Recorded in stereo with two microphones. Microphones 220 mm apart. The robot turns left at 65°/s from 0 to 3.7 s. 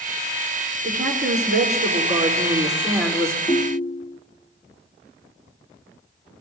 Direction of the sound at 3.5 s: 20° left (ahead or behind).